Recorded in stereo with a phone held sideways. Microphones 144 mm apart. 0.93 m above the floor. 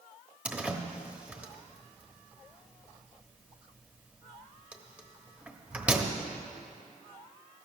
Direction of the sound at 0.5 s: 10° right (ahead or behind).